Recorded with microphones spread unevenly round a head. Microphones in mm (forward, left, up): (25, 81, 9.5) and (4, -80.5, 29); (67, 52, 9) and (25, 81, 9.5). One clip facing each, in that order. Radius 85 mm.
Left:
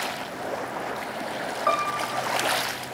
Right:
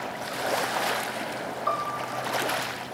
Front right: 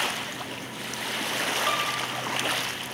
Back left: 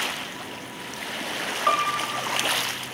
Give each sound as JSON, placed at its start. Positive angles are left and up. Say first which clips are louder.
{"t": 1.7, "sound": "a piano", "louder": "left 6 dB, back left 4 dB", "azimuth_deg": 85, "distance_m": 1.1}